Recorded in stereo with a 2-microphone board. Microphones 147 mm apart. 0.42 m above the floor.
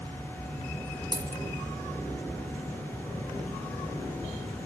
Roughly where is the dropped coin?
Right.